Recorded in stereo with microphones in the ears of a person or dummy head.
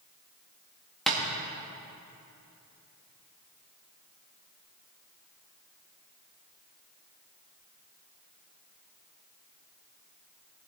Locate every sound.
1.1 s tapping: centre (ahead or behind), 1.7 m